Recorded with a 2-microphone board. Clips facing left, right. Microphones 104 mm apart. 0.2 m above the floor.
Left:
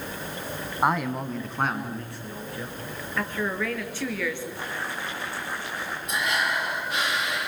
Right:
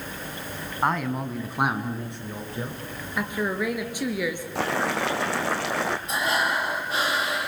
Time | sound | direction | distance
0.8 | a man speaking | 10° left (ahead or behind) | 1.9 m
3.2 | a woman speaking | 15° right (ahead or behind) | 3.5 m
4.5 | boiling | 90° right | 2.0 m
6.1 | breathing | 30° right (ahead or behind) | 3.5 m